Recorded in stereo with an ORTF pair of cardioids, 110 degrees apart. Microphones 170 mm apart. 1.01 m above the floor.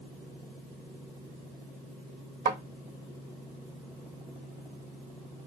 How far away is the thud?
About 1.2 m.